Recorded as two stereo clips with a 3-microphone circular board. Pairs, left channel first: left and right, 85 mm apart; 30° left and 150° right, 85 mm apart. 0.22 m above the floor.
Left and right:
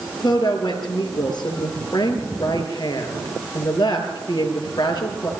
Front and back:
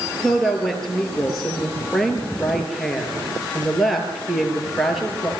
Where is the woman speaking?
120° left, 4.5 m.